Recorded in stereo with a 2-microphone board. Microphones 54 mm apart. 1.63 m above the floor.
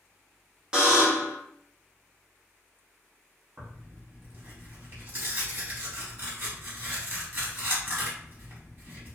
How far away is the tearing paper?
About 1.2 m.